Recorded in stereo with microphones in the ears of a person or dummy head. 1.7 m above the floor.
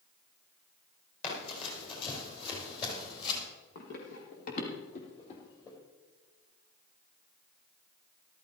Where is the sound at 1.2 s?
35° left (ahead or behind), 6.5 m; by 3.4 s 25° left (ahead or behind), 3.5 m.